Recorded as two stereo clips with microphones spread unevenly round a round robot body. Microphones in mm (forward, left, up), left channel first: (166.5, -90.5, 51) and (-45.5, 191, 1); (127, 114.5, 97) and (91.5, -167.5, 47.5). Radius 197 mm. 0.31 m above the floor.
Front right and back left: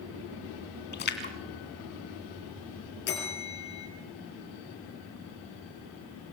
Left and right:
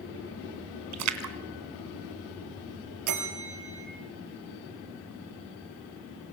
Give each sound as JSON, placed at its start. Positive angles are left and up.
{"t": 0.9, "sound": "a splash", "azimuth_deg": -120, "distance_m": 2.5}
{"t": 3.1, "sound": "a bell", "azimuth_deg": -120, "distance_m": 5.0}